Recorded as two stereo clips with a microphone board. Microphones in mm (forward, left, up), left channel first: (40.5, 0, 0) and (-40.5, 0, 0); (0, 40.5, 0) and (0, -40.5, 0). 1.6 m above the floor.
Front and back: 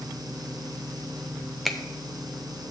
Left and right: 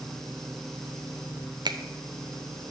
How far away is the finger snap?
About 0.6 m.